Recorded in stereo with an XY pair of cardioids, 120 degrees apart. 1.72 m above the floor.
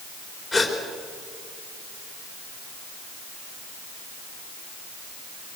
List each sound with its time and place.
0.5 s a gasp: 35° left, 3.5 m